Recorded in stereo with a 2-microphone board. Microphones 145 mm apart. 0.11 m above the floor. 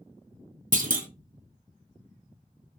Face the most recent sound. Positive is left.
turn(degrees=-65)  # may be behind; listen again after turning